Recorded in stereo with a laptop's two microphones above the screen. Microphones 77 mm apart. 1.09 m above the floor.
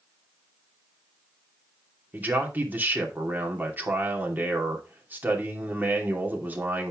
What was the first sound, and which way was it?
A man speaking, 25° right (ahead or behind).